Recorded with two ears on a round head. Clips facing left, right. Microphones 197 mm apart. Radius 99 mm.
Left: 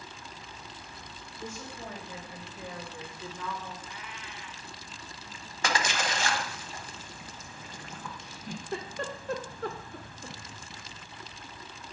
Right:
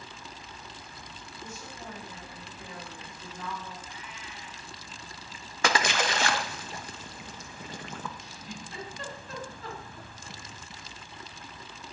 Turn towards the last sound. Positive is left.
turn(degrees=45)  # may be behind; listen again after turning